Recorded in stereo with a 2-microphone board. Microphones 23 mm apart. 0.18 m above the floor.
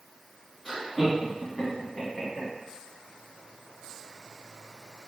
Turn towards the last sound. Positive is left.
turn(degrees=20)  # may be behind; listen again after turning